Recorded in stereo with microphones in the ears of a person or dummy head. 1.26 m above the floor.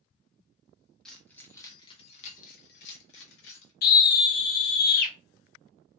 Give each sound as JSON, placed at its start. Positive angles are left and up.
{"t": 1.1, "sound": "keys jangling", "side_deg": 0, "distance_m": 1.0}
{"t": 3.8, "sound": "a scream", "side_deg": 55, "distance_m": 0.9}